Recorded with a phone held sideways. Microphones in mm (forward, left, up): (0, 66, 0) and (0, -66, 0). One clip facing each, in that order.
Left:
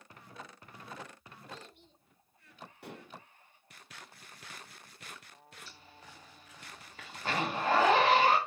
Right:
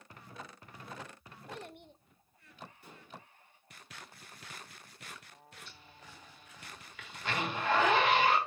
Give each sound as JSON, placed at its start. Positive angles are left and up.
{"t": 1.5, "sound": "a child speaking", "side_deg": -60, "distance_m": 0.6}
{"t": 2.8, "sound": "dishes clattering", "side_deg": 70, "distance_m": 0.8}
{"t": 5.7, "sound": "a zipper", "side_deg": 35, "distance_m": 1.9}